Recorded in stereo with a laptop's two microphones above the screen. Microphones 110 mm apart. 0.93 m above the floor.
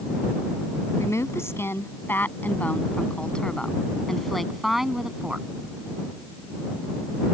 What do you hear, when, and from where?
1.0 s a woman speaking: 25° left (ahead or behind); by 5.5 s 5° right (ahead or behind)